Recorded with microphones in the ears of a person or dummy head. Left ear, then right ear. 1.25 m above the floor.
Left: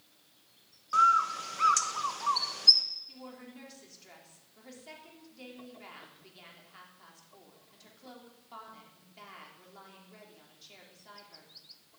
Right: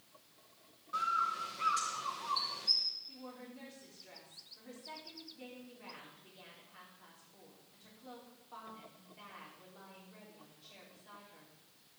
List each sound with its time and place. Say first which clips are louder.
0.9 s a bird: left 10 dB; 50° left (ahead or behind), 1.2 m
3.1 s a woman speaking: left 2 dB; 85° left, 4 m